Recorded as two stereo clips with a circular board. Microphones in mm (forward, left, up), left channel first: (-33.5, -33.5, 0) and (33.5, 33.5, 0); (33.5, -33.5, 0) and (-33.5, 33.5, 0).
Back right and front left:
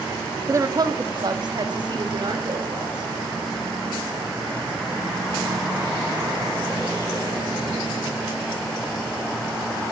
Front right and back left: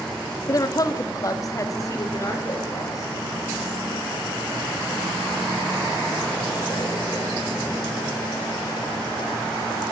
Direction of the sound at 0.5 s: 5° right.